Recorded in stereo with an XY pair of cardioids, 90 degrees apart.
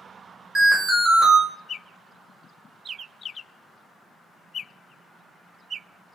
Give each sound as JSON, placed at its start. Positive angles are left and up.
{"t": 0.6, "sound": "an alarm", "azimuth_deg": -35, "distance_m": 1.4}